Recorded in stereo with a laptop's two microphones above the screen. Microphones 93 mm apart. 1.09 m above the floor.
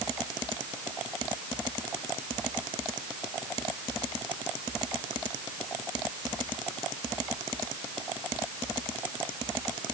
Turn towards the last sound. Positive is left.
No sound to turn to.